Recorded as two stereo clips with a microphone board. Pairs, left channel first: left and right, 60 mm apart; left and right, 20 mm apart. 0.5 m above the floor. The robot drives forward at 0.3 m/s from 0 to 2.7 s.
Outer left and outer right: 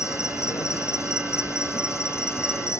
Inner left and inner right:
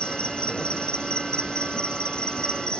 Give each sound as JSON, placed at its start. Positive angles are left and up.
{"t": 0.0, "sound": "an insect", "side_deg": 55}